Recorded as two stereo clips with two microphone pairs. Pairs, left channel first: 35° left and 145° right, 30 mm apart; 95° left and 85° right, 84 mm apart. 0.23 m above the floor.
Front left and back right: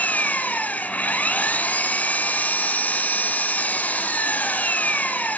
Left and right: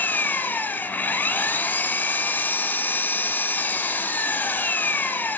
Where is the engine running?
35° left, 1.0 m.